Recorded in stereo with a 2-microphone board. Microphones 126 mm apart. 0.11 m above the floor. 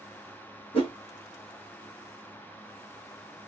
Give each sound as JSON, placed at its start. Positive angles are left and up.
{"t": 0.7, "sound": "a whoosh", "side_deg": 50, "distance_m": 1.5}